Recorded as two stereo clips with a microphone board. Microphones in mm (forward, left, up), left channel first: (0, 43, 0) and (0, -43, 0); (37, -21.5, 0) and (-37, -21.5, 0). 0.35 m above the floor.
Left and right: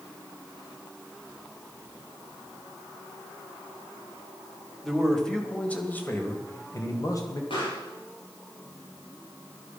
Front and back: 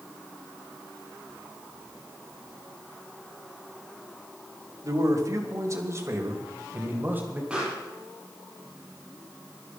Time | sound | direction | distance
4.8 | a man speaking | straight behind | 2 m
7.5 | a pop | 105° left | 7.5 m